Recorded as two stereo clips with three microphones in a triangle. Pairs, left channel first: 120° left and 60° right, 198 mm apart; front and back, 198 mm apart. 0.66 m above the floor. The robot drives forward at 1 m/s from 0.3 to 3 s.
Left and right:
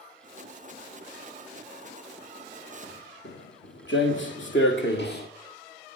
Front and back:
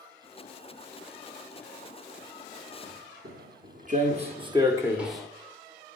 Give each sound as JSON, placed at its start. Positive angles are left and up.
{"t": 2.8, "sound": "footsteps", "azimuth_deg": 150, "distance_m": 3.0}